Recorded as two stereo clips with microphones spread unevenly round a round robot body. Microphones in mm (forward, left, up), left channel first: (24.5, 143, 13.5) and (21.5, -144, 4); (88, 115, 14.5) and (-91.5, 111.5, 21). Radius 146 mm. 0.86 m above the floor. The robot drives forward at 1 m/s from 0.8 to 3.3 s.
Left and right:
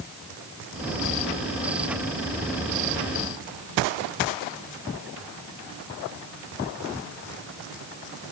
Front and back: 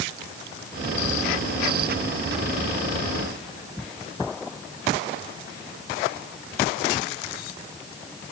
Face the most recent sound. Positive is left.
No sound to turn to.